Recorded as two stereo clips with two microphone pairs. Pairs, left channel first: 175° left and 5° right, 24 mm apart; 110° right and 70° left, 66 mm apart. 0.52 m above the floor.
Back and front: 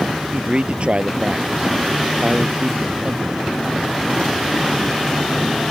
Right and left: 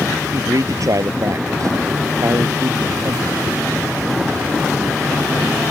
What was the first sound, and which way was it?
A man speaking, 40° left.